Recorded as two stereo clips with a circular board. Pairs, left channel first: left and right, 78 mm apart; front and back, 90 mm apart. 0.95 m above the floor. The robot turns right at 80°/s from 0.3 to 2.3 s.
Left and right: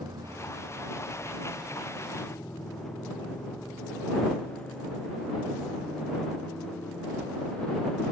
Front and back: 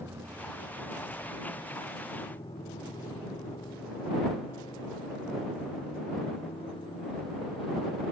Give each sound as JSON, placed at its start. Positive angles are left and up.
{"t": 0.0, "sound": "a motorcycle", "azimuth_deg": -115}